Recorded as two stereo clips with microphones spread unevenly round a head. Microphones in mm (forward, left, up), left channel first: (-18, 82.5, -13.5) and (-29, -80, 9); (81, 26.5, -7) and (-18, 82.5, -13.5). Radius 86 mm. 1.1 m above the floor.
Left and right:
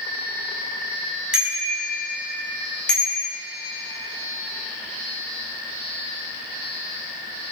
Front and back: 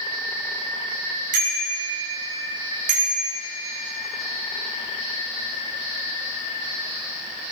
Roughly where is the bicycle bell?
Behind.